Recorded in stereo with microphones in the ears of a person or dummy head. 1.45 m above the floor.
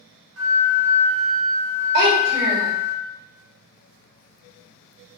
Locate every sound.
0.4 s a flute: 75° right (ahead or behind), 0.8 m
1.9 s a child speaking: 55° right (ahead or behind), 1.9 m